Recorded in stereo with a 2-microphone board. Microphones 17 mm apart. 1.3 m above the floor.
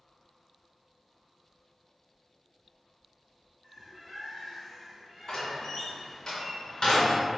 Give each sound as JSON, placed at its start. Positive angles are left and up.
{"t": 3.6, "sound": "a bird", "side_deg": -5, "distance_m": 1.2}
{"t": 5.3, "sound": "a door slam", "side_deg": 40, "distance_m": 0.9}